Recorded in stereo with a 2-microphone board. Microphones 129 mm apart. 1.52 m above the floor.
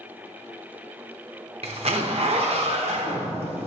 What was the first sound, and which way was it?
A zipper, 50° right (ahead or behind).